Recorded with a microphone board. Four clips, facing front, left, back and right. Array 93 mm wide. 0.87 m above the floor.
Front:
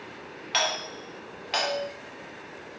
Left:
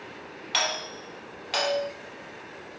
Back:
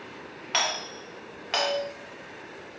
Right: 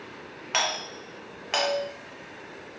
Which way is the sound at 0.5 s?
110° right.